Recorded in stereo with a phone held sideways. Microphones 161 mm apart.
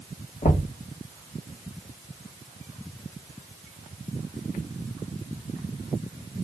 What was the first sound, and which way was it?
Knocking, 55° left (ahead or behind).